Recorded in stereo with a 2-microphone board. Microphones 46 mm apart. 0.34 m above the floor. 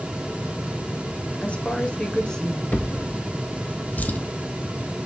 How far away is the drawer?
About 0.8 m.